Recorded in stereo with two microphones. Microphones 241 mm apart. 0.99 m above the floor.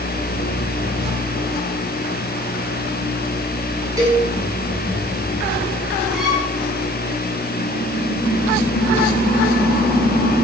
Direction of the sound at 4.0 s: 15° right (ahead or behind).